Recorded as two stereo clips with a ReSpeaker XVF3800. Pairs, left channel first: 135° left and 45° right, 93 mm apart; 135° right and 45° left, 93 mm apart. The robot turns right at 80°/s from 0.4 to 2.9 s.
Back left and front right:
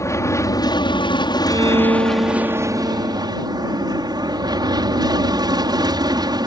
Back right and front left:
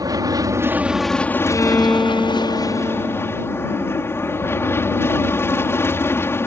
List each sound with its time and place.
0.0 s an aircraft: 85° left; by 6.5 s 75° right
1.5 s a violin: 90° right; by 3.3 s 25° left